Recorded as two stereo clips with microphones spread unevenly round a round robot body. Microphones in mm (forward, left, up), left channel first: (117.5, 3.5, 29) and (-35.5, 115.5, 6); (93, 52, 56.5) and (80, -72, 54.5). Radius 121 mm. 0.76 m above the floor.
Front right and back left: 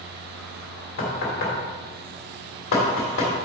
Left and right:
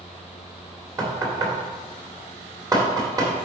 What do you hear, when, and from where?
1.0 s knocking: 35° right, 1.9 m